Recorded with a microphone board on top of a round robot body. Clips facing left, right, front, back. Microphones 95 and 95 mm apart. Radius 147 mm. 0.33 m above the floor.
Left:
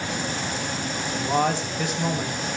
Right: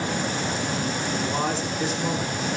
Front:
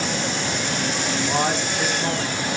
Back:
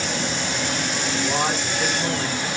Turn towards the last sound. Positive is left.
turn(degrees=65)